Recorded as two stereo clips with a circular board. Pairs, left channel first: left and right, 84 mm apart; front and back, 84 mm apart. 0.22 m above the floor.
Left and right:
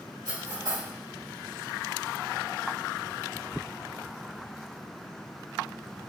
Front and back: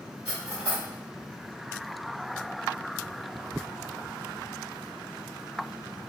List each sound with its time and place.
0.2 s cutlery clinking: 105° right, 2.0 m